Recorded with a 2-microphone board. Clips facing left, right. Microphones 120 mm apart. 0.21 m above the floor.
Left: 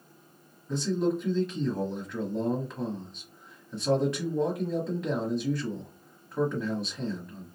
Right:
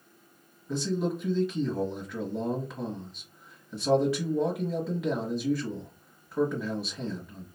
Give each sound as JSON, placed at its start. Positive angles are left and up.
{"t": 0.7, "sound": "a man speaking", "side_deg": -5, "distance_m": 1.0}